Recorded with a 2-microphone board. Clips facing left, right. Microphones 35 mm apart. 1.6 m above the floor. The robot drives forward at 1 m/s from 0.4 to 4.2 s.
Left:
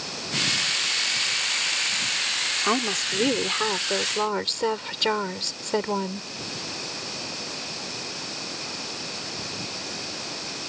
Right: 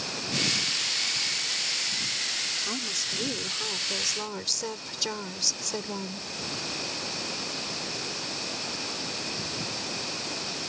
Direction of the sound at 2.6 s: 55° left (ahead or behind).